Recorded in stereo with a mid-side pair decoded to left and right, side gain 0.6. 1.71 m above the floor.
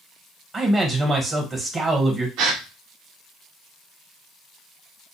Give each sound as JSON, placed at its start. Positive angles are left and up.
{"t": 0.5, "sound": "a man speaking", "azimuth_deg": -30, "distance_m": 1.1}
{"t": 2.4, "sound": "a gasp", "azimuth_deg": -65, "distance_m": 0.6}